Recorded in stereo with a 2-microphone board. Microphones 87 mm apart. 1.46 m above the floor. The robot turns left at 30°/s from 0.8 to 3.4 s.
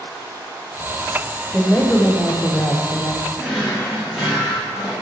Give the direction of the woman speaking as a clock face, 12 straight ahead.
6 o'clock.